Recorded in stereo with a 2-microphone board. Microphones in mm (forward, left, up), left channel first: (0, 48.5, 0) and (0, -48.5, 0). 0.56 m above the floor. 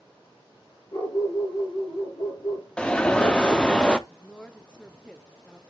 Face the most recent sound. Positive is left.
turn(degrees=10)  # may be behind; listen again after turning